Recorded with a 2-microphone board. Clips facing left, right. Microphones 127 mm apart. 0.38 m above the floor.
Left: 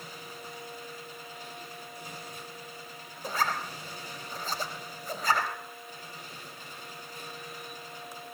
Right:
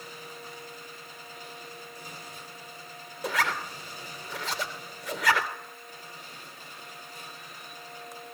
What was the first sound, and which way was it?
A zipper, 75° right (ahead or behind).